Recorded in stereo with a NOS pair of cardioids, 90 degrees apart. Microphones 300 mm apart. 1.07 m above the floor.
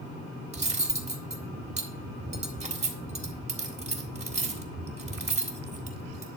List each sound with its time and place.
0.5 s cutlery clinking: 20° right, 1.6 m